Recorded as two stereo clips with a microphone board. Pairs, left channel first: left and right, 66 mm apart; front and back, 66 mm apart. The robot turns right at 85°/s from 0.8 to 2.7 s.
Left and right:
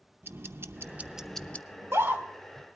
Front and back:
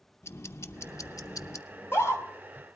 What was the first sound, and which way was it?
Ticking, 40° right.